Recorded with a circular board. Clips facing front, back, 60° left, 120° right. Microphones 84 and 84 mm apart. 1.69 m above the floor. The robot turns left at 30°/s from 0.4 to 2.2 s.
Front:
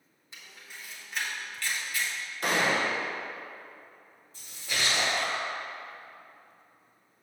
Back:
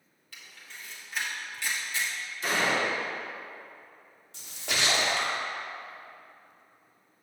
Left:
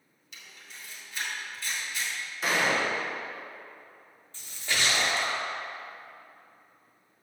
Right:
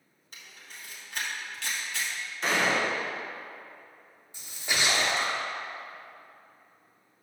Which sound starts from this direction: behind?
A splash, at 4.3 s.